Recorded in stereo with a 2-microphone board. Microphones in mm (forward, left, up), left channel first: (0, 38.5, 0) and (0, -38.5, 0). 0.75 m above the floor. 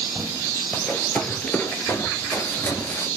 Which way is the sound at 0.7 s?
15° left (ahead or behind).